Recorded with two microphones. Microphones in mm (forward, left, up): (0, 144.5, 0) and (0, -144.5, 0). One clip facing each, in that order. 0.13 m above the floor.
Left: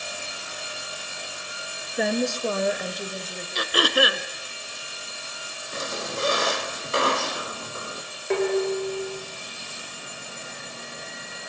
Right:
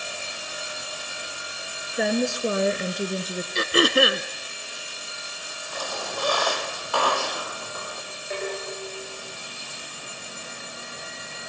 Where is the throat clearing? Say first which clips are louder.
Right 3 dB; 25° right (ahead or behind), 1.0 m.